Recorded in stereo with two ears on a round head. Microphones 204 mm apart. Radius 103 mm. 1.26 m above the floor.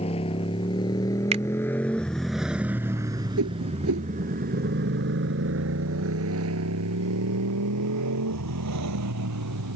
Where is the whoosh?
70° right (ahead or behind).